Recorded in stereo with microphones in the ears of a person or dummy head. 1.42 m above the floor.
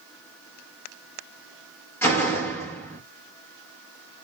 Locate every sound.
2.0 s a door slam: 10° left (ahead or behind), 1.2 m